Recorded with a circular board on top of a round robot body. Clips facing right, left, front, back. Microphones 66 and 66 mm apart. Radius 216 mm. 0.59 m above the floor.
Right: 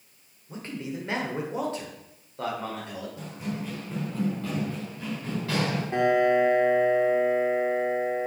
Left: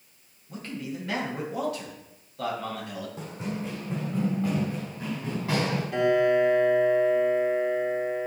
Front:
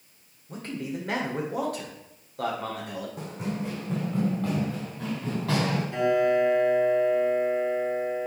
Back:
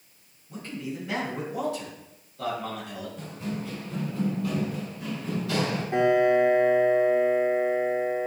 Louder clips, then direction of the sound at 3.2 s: Left 1 dB, front 1 dB; 25° left.